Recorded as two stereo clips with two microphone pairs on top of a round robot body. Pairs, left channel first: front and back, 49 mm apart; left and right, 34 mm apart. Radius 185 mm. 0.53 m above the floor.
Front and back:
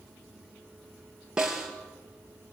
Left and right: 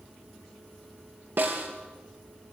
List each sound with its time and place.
1.4 s a snare drum: 105° right, 3.5 m